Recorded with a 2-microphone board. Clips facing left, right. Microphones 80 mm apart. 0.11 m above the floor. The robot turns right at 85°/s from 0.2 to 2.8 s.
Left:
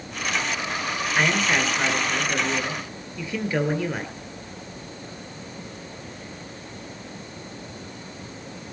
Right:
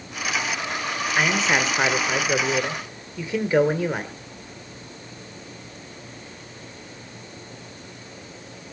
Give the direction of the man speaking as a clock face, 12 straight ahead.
6 o'clock.